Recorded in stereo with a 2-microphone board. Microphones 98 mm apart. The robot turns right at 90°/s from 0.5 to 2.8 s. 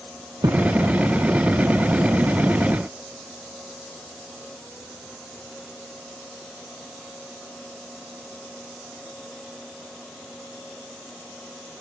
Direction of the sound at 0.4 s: 45° right (ahead or behind).